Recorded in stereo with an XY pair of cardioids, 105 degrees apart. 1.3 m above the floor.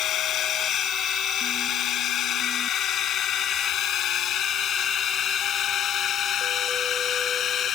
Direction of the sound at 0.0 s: 70° left.